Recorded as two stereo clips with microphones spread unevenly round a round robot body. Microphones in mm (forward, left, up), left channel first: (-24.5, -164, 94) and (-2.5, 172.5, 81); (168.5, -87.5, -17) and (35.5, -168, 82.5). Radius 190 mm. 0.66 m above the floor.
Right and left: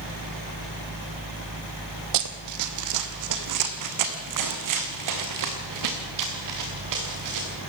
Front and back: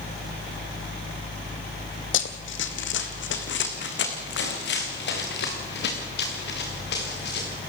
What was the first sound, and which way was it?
Running footsteps, 50° left.